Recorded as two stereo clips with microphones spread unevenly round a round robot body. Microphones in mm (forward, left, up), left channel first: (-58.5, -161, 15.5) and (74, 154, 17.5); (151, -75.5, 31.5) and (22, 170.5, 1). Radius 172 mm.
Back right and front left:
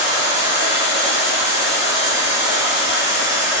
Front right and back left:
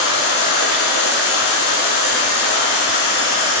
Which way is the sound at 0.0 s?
15° right.